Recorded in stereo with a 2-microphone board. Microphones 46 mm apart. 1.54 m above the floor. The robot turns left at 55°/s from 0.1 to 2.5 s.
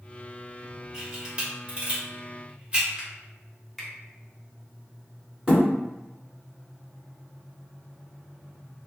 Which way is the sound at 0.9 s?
15° right (ahead or behind).